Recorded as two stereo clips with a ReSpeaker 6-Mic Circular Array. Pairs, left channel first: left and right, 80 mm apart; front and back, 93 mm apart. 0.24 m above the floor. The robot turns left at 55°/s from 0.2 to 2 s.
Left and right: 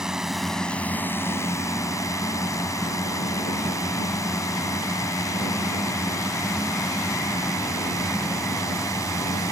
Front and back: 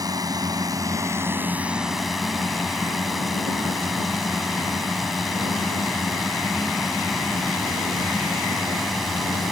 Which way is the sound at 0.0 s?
170° right.